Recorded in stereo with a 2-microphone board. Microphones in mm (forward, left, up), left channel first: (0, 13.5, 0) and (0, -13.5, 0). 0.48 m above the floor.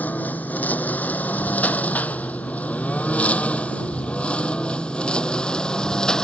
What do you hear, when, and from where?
0.0 s a lawn mower: 80° left; by 6.2 s 25° left (ahead or behind)